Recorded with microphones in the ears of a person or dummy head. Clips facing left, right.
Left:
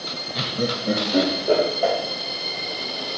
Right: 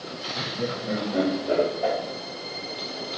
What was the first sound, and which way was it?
Laughter, 35° left (ahead or behind).